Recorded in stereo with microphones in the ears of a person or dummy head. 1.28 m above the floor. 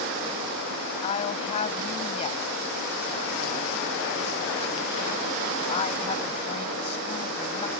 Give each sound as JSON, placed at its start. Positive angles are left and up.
{"t": 1.0, "sound": "a woman speaking", "side_deg": 40}